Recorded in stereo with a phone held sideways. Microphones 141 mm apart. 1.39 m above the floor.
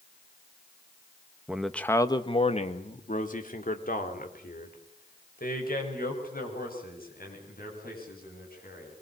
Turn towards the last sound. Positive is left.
turn(degrees=90)